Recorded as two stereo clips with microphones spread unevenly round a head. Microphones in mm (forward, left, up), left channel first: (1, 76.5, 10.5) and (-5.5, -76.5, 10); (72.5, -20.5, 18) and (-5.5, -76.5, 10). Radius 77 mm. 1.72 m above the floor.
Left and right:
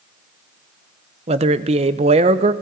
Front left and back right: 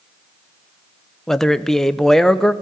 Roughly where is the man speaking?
Ahead right.